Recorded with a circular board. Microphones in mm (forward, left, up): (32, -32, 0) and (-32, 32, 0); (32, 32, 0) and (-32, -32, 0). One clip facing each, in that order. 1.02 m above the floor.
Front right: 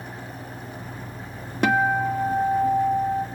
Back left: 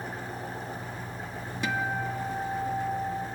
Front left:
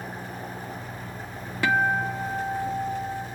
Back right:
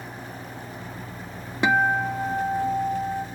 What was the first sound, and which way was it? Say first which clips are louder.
An engine running: back left 1 dB, front left 2 dB; 85° left.